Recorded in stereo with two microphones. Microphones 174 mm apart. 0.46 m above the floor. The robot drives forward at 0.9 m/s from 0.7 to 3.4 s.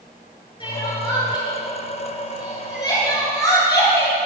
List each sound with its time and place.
0.6 s crying: 30° left (ahead or behind), 6 m; by 4.2 s 25° left (ahead or behind), 8.5 m